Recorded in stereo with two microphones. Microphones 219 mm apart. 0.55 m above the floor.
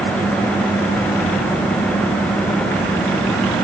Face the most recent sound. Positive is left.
No sound to turn to.